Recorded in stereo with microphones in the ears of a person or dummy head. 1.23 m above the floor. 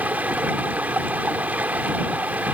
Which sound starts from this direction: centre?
Running water, at 0.0 s.